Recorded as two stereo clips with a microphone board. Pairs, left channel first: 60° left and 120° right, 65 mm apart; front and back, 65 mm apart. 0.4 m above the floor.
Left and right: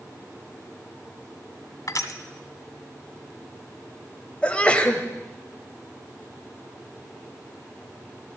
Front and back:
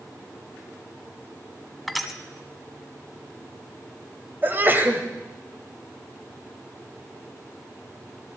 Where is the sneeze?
130° left, 1.5 m.